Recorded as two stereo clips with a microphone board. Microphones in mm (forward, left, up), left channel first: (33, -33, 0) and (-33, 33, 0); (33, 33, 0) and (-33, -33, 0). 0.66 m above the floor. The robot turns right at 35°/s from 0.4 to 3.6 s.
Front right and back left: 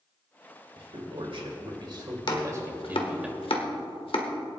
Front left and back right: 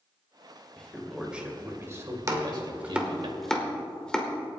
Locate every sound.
0.8 s a man speaking: 125° left, 2.5 m; by 3.3 s 145° right, 2.5 m
2.3 s chopping: 80° right, 1.3 m; by 4.3 s 35° right, 1.3 m